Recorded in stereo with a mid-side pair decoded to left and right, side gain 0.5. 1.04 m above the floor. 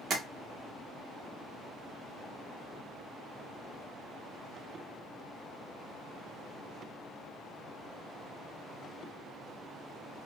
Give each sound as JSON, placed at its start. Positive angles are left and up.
{"t": 0.1, "sound": "tapping", "azimuth_deg": -50, "distance_m": 0.9}